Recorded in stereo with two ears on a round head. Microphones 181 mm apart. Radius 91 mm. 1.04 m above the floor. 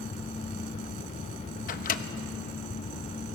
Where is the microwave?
40° left (ahead or behind), 1.0 m.